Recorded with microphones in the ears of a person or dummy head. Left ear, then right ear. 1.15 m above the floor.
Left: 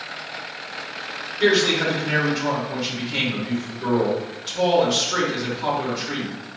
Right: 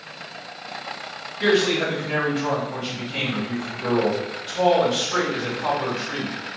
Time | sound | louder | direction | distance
1.4 | a man speaking | left 1 dB | 25° left (ahead or behind) | 1.8 m